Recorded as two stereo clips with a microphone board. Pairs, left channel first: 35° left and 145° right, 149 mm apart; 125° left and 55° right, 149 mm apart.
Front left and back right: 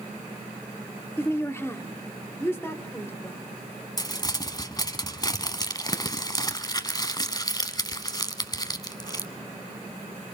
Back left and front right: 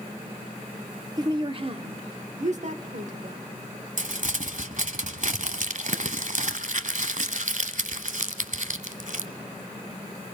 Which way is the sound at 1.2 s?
20° right.